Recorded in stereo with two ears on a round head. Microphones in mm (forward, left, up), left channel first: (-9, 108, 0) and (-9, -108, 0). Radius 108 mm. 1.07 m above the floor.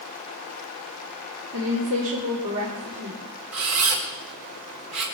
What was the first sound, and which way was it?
A woman speaking, 70° right (ahead or behind).